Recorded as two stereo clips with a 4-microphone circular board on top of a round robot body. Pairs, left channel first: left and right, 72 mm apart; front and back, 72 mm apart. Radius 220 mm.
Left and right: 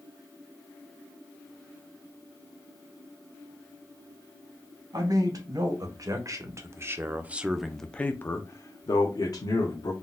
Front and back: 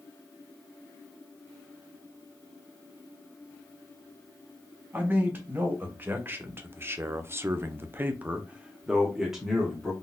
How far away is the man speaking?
About 1.7 m.